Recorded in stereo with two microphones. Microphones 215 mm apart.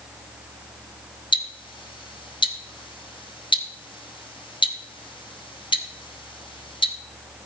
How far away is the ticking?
About 1.0 m.